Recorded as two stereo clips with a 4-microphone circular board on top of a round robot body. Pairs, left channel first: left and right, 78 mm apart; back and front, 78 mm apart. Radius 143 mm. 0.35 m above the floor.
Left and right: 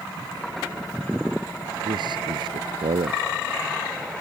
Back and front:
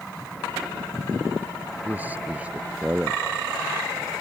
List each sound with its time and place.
1.9 s a man speaking: 70° right; by 4.2 s 85° right